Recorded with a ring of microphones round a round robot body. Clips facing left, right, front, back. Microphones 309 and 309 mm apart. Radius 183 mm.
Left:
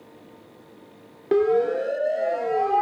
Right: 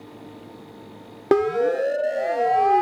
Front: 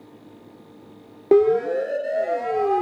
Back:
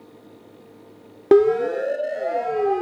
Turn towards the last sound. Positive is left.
turn(degrees=-80)